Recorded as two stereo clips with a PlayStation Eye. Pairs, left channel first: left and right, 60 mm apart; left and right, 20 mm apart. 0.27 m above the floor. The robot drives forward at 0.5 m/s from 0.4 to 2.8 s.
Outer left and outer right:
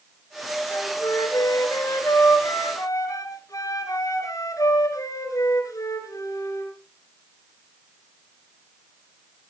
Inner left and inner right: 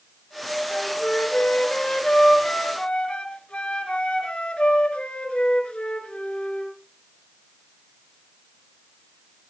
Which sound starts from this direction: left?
A flute, at 0.7 s.